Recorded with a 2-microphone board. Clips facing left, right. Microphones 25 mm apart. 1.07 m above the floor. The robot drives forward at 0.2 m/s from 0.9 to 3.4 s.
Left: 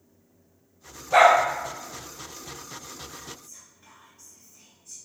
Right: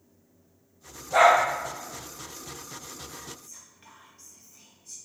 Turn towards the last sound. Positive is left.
turn(degrees=-50)  # may be behind; listen again after turning